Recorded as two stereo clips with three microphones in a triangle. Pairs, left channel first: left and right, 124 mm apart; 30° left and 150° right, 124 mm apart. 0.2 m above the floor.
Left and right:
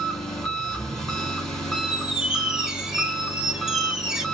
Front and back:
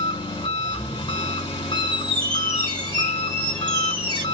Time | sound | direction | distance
0.0 | an engine running | 5° left | 1.5 m
1.8 | a squeak | 170° right | 1.1 m